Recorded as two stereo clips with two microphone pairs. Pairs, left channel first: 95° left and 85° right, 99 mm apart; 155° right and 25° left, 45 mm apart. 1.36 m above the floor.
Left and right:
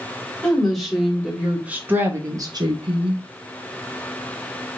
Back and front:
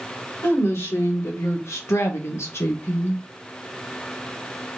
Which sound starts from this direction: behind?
A woman speaking, at 0.4 s.